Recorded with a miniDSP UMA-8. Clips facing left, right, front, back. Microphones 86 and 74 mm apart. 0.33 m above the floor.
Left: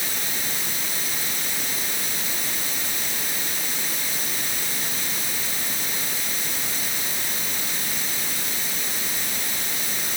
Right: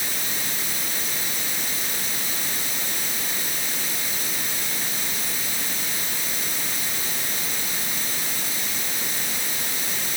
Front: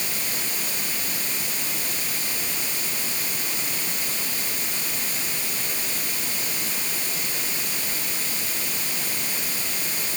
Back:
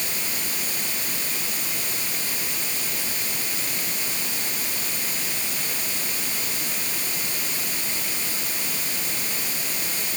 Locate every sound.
Only background noise.